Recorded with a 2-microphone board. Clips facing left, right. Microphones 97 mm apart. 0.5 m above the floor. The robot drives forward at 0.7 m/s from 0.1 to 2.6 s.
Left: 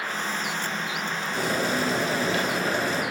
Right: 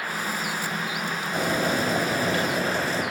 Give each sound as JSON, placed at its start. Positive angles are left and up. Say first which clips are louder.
{"t": 1.3, "sound": "boiling", "louder": "right 2 dB", "side_deg": -50, "distance_m": 3.5}